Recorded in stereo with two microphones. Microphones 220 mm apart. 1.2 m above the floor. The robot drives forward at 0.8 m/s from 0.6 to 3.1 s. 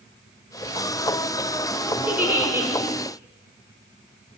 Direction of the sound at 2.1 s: 10° right (ahead or behind).